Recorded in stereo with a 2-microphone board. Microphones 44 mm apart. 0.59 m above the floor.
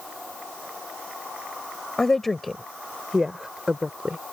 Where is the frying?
I don't hear frying.